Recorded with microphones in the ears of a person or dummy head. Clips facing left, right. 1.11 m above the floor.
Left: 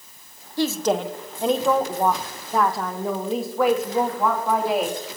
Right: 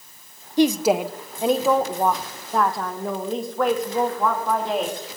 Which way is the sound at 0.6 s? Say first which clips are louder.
Right 4 dB; 15° right (ahead or behind).